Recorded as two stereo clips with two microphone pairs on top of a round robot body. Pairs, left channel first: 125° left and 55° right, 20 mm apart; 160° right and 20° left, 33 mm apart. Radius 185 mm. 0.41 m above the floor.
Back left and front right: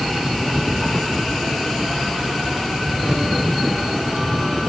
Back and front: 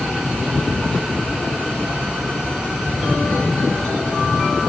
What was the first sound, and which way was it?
Only background noise.